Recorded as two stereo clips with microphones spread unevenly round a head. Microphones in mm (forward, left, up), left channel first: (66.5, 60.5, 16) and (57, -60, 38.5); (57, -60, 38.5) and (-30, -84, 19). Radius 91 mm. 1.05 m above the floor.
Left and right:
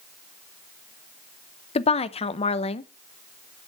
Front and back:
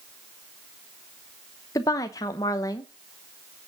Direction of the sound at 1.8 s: 80° left.